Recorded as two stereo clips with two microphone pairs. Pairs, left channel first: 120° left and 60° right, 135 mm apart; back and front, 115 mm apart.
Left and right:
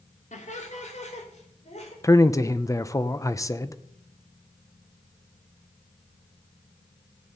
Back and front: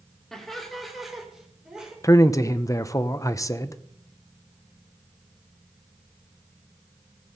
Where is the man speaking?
155° left, 0.7 m.